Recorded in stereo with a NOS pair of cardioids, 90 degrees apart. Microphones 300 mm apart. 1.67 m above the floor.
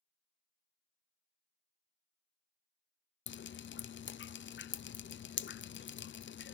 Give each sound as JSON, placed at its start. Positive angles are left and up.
{"t": 3.3, "sound": "dripping", "azimuth_deg": 40, "distance_m": 0.7}